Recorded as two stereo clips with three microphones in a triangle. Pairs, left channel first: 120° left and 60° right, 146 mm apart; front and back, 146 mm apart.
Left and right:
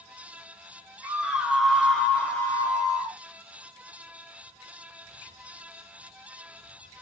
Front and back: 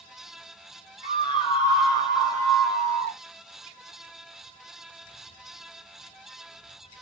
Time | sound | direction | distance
1.0 | a scream | 5° left | 1.4 m